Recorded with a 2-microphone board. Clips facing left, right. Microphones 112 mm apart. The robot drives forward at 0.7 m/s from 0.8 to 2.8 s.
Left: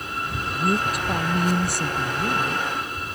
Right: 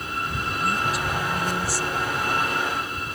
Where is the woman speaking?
50° left (ahead or behind); by 2.7 s 65° left (ahead or behind).